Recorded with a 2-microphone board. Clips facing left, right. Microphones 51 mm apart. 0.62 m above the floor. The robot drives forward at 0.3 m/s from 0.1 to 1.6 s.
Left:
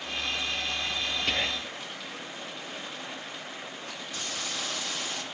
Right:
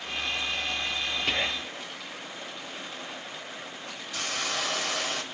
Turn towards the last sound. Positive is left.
turn(degrees=-75)  # may be behind; listen again after turning